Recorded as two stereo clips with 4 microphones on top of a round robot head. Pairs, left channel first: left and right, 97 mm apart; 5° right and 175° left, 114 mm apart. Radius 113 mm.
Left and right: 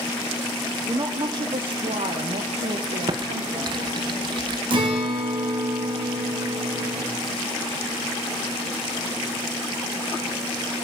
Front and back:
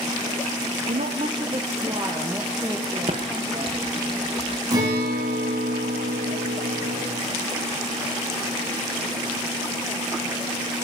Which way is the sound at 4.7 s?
125° right.